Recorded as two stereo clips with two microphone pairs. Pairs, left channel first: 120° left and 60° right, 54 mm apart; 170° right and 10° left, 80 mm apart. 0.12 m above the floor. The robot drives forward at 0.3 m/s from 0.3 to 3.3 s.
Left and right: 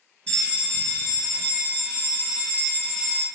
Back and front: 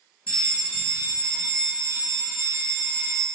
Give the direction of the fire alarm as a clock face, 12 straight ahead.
7 o'clock.